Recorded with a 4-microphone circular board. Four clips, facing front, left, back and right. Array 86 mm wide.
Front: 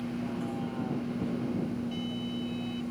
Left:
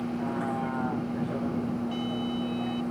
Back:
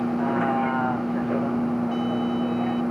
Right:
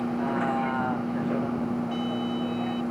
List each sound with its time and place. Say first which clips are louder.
0.0 s a vehicle: right 4 dB, back 11 dB; 160° right; by 2.9 s 170° right